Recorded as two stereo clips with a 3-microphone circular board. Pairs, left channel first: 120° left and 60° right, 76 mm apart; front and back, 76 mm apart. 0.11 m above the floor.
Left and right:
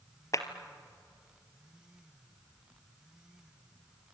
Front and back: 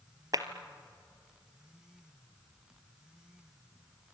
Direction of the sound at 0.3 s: 155° left.